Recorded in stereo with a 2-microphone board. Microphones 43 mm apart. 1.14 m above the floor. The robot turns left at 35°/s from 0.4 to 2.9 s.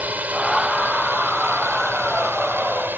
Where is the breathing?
No breathing in this recording.